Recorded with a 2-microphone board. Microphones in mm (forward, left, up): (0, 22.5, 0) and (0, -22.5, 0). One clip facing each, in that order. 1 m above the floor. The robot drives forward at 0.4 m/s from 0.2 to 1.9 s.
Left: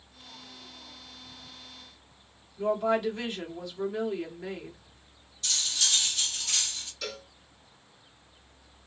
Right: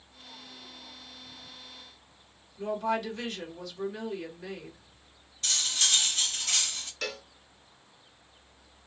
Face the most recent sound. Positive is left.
turn(degrees=-50)  # may be behind; listen again after turning